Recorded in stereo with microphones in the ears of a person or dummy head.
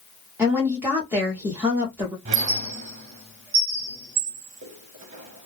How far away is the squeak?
About 0.7 m.